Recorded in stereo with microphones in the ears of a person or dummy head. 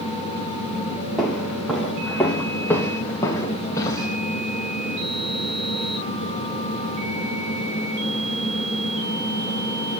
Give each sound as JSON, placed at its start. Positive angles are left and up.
{"t": 1.2, "sound": "footsteps", "side_deg": 0, "distance_m": 3.5}